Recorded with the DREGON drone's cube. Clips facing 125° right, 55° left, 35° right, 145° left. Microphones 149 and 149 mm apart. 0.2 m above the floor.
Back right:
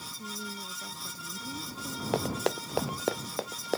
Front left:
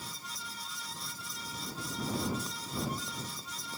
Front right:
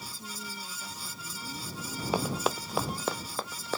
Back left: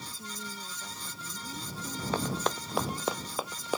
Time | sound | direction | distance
0.2 | a woman speaking | 130° right | ?
2.1 | running footsteps | 110° right | ?